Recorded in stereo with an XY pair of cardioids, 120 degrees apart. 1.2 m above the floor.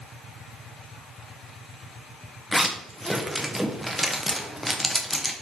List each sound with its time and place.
2.5 s a zipper: straight ahead, 0.6 m